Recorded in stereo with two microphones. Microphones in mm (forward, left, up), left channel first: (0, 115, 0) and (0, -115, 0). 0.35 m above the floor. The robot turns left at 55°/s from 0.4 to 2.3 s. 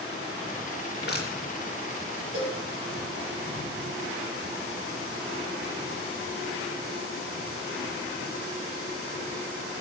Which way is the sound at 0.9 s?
55° left (ahead or behind).